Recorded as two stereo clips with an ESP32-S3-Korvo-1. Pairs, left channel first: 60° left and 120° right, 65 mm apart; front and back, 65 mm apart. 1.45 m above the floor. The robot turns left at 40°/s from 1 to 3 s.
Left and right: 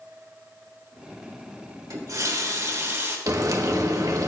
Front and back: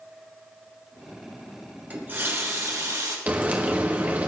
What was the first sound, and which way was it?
A running tap, 120° right.